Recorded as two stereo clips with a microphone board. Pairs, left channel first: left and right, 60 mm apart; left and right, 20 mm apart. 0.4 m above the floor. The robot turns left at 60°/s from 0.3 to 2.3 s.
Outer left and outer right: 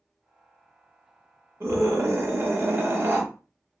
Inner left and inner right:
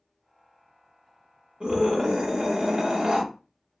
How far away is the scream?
About 1.2 m.